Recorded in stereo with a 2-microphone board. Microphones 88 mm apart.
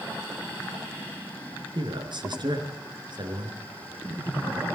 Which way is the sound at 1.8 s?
60° right (ahead or behind).